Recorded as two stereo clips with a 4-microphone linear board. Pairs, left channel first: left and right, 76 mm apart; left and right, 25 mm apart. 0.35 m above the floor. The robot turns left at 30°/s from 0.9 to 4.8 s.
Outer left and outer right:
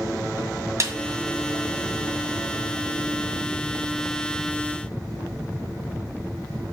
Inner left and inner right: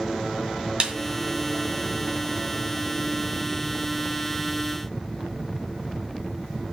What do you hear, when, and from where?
0.8 s a snare drum: 45° right (ahead or behind), 1.9 m